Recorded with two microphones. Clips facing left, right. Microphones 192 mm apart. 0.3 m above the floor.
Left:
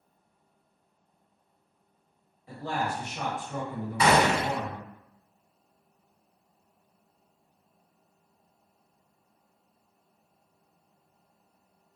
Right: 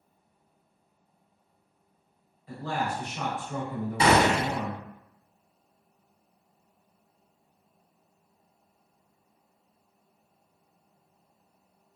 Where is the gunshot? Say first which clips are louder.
Right 1 dB; 25° right (ahead or behind), 0.9 m.